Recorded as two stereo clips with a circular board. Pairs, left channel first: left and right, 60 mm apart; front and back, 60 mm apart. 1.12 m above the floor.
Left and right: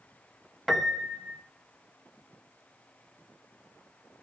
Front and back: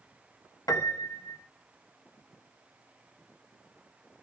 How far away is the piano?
About 1.5 m.